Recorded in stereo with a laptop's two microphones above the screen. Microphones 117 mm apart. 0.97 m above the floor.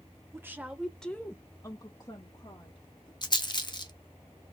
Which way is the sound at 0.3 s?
20° right (ahead or behind).